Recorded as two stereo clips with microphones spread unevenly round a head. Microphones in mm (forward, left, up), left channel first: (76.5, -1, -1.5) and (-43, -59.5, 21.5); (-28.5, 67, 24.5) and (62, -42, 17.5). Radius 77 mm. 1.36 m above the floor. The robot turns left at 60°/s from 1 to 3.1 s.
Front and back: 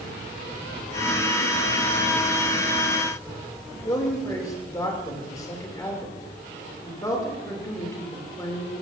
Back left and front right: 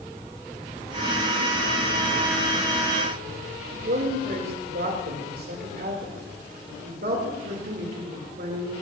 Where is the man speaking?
35° right, 3 m.